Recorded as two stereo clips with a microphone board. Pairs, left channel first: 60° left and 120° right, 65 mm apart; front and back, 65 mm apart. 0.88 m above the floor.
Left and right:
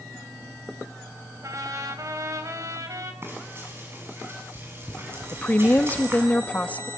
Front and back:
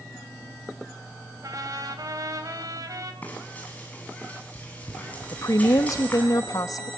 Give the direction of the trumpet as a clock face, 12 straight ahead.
5 o'clock.